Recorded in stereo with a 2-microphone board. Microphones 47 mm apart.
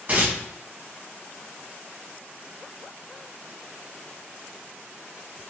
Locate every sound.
0.1 s tearing paper: 35° right (ahead or behind), 1.0 m